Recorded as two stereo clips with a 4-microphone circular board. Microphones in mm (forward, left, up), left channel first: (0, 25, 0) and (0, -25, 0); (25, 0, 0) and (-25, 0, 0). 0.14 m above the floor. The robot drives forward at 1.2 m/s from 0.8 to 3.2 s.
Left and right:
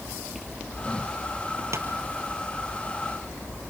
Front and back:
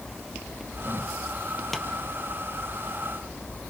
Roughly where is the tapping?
Right.